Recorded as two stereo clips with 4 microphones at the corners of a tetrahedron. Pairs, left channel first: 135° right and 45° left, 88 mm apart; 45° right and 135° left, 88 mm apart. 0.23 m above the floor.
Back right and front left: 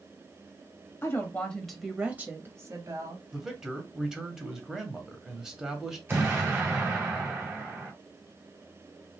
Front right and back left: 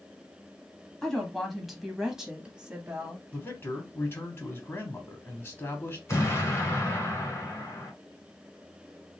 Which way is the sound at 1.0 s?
125° right.